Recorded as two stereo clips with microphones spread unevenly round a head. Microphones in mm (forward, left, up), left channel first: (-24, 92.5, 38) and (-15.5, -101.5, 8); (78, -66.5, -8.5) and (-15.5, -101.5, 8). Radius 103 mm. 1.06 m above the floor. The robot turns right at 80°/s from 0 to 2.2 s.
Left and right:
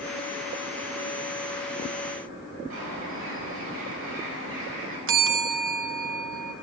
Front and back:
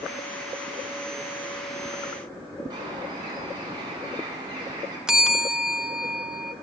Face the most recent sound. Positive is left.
turn(degrees=-75)